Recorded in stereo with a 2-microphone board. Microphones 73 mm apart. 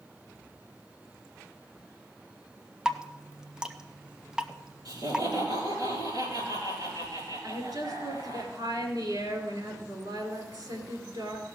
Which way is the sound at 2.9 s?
10° right (ahead or behind).